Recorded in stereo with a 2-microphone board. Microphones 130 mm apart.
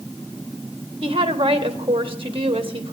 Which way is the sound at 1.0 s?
45° right (ahead or behind).